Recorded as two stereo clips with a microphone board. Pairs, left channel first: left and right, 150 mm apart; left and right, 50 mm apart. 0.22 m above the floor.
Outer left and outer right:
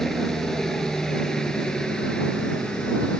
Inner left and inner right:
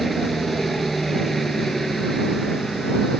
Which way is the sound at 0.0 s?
5° left (ahead or behind).